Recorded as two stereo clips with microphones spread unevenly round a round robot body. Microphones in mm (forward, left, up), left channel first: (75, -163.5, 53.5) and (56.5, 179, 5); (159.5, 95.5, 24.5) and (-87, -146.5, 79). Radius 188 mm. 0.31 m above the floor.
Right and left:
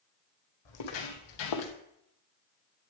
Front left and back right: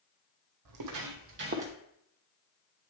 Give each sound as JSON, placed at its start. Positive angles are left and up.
{"t": 0.7, "sound": "footsteps", "azimuth_deg": -105, "distance_m": 1.4}